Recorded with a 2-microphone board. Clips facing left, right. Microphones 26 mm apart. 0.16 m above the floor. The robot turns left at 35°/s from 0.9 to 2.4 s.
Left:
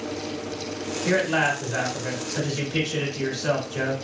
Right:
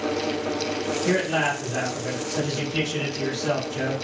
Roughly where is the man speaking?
Centre.